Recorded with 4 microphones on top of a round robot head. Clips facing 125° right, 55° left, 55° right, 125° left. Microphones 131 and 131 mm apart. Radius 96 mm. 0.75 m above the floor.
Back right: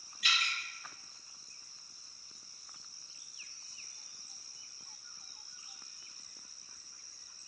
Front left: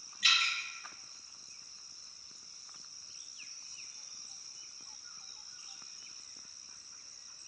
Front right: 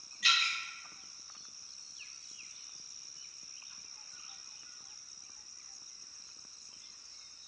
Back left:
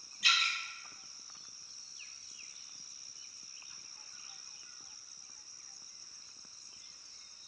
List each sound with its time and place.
0.2 s dripping: 60° left, 2.0 m